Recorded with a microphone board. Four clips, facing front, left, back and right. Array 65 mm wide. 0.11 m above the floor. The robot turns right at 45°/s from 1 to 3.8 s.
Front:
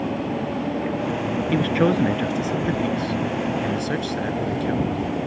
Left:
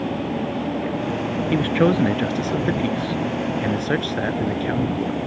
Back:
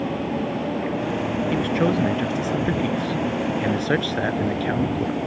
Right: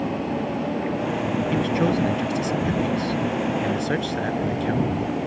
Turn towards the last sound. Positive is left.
turn(degrees=155)